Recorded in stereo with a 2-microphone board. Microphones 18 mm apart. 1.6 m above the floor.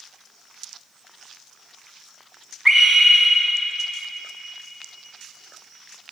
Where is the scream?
20° right (ahead or behind), 2.5 m.